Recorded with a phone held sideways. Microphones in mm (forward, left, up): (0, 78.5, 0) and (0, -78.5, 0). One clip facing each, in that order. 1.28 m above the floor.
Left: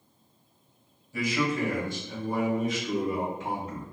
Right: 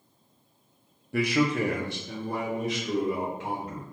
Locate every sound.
1.1 s a man speaking: 65° right (ahead or behind), 0.6 m; by 3.8 s 75° right (ahead or behind), 1.9 m